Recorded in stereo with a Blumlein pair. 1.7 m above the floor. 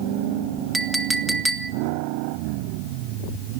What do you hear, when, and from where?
0.7 s a clink: 5° right, 1.7 m